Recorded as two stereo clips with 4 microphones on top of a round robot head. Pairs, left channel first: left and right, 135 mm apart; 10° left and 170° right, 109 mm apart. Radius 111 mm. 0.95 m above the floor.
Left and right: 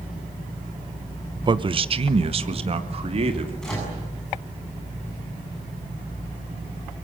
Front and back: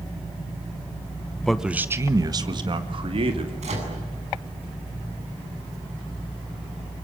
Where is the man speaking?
75° right, 1.0 m; by 3.5 s 135° right, 3 m.